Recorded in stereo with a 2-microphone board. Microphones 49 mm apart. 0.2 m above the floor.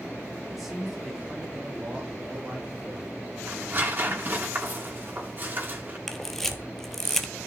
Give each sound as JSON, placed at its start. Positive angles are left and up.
{"t": 0.5, "sound": "a man speaking", "side_deg": -5, "distance_m": 5.0}
{"t": 3.5, "sound": "tearing paper", "side_deg": -40, "distance_m": 3.0}
{"t": 6.1, "sound": "a camera shutter", "side_deg": 5, "distance_m": 1.1}